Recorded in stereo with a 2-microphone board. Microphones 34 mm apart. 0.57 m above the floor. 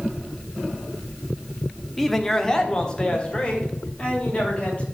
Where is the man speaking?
5° left (ahead or behind), 0.8 m; by 4.8 s 35° left (ahead or behind), 3 m.